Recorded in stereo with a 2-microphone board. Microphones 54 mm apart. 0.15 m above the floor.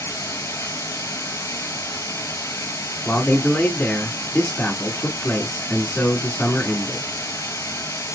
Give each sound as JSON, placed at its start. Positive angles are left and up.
{"t": 0.0, "sound": "running water", "side_deg": 65, "distance_m": 1.1}
{"t": 3.0, "sound": "a man speaking", "side_deg": 20, "distance_m": 1.5}